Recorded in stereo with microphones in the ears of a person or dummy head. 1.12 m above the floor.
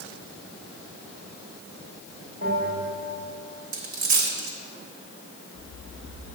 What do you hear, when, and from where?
2.4 s a bell: 70° right (ahead or behind), 3 m
3.7 s a dropped coin: 35° right (ahead or behind), 1.0 m